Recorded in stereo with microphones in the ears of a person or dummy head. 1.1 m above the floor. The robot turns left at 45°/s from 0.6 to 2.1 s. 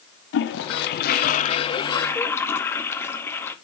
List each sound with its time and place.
0.3 s a toilet flushing: 80° left, 0.7 m; by 3.5 s 15° left, 0.7 m